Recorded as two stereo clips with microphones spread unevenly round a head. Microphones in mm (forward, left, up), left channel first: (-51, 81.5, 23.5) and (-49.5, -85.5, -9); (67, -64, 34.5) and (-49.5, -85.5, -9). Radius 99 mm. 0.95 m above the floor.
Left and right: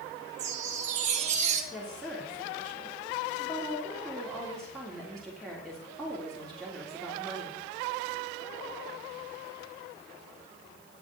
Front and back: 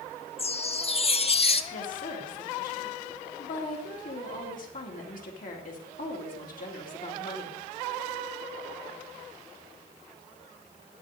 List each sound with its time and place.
0.4 s a chime: 35° right, 0.9 m
1.7 s a woman speaking: straight ahead, 2.5 m